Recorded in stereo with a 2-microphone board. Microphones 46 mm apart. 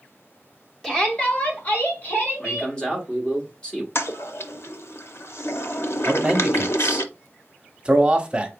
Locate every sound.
0.8 s a shout: 10° left (ahead or behind), 1.2 m; by 2.7 s 55° left (ahead or behind), 2.5 m
2.4 s a man speaking: 20° left (ahead or behind), 1.2 m
4.0 s a toilet flushing: 70° left (ahead or behind), 0.5 m
6.0 s a man speaking: 20° right (ahead or behind), 0.8 m